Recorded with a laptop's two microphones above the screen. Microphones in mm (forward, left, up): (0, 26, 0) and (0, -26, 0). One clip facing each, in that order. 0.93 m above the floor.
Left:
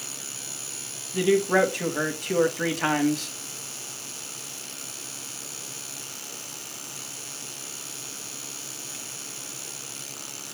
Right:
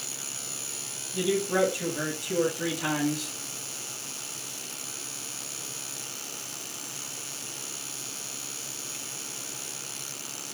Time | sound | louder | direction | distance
1.1 | a man speaking | left 5 dB | 60° left (ahead or behind) | 1.3 m